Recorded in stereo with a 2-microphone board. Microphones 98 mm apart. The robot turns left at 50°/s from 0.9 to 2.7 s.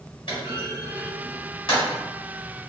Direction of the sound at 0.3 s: 60° left (ahead or behind).